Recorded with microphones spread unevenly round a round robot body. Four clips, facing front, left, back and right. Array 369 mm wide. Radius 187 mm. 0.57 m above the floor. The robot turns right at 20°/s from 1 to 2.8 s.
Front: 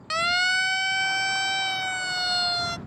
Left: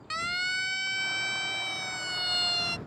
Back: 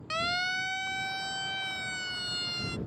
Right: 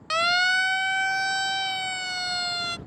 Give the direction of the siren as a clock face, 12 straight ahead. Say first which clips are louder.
Right 10 dB, front 7 dB; 2 o'clock.